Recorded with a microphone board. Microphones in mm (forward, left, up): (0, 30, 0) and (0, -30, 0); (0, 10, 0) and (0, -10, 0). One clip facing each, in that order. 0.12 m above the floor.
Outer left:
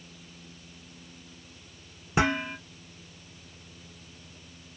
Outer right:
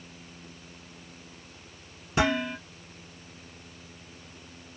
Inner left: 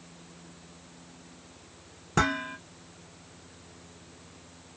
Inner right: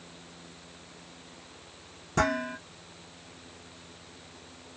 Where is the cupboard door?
No cupboard door in this recording.